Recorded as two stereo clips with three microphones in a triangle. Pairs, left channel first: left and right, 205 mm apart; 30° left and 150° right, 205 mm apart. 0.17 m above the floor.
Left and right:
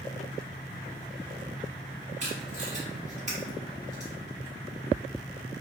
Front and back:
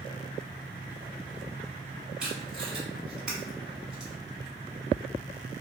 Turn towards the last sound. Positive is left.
turn(degrees=-65)